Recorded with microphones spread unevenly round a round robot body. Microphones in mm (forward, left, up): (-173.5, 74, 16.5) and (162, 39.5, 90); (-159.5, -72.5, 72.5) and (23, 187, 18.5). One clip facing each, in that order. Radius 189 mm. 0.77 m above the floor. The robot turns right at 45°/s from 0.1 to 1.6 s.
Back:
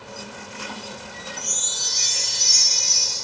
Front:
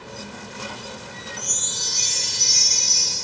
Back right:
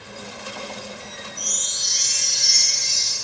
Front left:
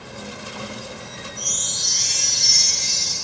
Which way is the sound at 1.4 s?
40° left.